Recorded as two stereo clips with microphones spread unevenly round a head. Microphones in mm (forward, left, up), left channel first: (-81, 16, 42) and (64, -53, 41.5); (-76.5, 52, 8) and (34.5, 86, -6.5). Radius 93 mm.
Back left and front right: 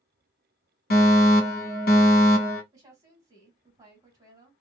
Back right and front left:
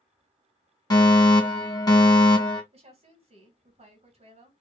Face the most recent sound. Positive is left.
turn(degrees=45)